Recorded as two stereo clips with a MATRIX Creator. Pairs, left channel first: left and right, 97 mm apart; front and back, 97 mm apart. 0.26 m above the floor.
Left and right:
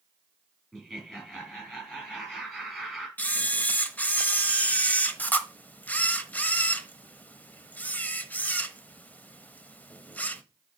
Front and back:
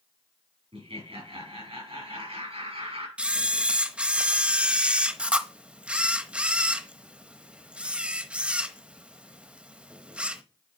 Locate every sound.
0.7 s laughter: 175° left, 5.5 m
3.2 s a camera shutter: 125° left, 0.9 m